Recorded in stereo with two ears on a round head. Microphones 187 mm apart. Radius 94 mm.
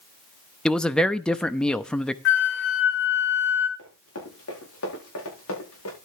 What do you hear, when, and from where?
0.7 s a man speaking: 5° left (ahead or behind), 0.8 m
2.2 s a flute: 60° left (ahead or behind), 1.9 m
3.8 s running footsteps: 75° left (ahead or behind), 9 m; by 6.0 s 85° left, 9.5 m